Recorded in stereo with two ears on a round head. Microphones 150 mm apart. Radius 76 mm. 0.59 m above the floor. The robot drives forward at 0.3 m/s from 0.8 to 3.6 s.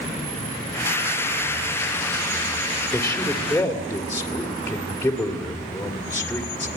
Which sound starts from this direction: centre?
A man speaking, at 2.9 s.